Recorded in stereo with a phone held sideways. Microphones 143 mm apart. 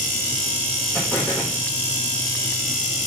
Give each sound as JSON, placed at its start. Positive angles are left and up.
{"t": 0.9, "sound": "an explosion", "side_deg": 15, "distance_m": 4.5}